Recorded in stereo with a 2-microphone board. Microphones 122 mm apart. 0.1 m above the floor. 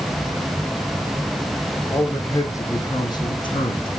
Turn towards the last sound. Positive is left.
turn(degrees=50)  # may be behind; listen again after turning